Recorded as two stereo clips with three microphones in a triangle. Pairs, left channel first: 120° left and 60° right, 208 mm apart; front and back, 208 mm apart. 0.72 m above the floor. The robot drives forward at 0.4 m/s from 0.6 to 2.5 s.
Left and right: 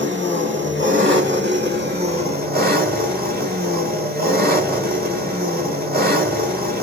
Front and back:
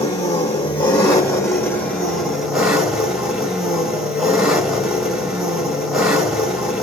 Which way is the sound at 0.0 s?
65° right.